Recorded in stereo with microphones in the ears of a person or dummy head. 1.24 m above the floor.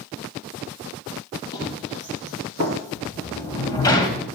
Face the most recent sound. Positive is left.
turn(degrees=20)  # may be behind; listen again after turning